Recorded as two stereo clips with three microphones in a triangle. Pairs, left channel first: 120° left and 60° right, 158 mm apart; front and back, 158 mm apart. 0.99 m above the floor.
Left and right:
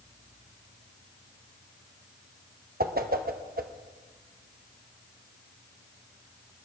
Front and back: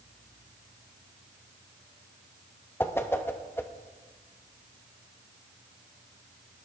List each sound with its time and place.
2.8 s a whoosh: 75° right, 0.8 m